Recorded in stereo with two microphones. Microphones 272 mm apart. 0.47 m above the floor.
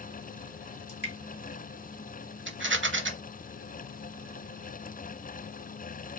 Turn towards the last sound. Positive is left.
turn(degrees=-45)  # may be behind; listen again after turning